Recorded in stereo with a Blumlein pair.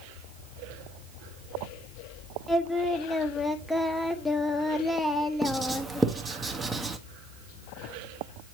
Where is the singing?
5° left, 0.9 m.